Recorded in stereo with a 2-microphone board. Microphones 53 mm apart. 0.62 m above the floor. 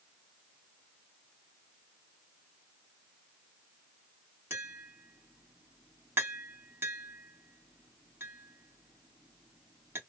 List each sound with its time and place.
4.5 s tapping: 50° right (ahead or behind), 1.3 m